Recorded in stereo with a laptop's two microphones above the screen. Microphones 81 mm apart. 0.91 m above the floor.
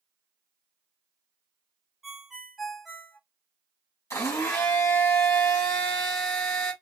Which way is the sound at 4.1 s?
40° left (ahead or behind).